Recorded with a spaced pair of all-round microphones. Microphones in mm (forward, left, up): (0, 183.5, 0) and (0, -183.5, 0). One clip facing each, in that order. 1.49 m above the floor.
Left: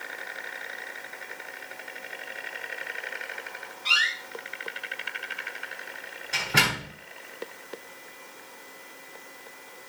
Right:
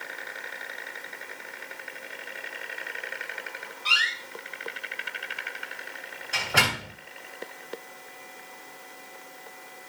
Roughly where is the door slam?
Left.